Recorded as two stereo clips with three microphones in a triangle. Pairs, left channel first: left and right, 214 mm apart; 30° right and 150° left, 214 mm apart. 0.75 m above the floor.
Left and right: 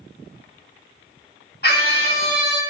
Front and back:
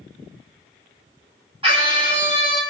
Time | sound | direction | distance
1.6 | a scream | 95° left | 1.2 m